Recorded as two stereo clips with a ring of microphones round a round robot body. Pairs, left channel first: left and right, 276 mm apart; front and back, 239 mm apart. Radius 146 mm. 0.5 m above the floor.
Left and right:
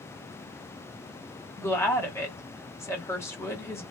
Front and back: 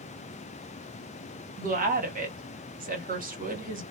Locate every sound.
1.6 s a woman speaking: 165° left, 1.3 m